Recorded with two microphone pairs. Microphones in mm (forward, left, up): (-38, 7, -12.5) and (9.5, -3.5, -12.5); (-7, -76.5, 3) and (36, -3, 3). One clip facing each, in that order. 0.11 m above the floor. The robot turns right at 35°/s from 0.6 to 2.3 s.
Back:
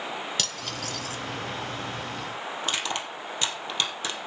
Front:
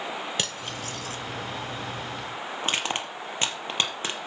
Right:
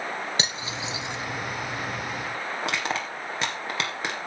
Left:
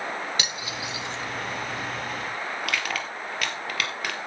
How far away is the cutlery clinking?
About 1.2 m.